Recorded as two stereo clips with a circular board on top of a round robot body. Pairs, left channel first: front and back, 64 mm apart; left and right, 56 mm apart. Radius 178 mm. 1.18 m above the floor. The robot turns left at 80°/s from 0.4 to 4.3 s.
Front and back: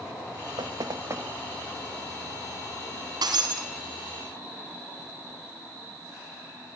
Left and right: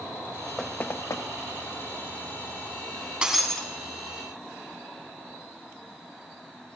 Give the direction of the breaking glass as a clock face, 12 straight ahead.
5 o'clock.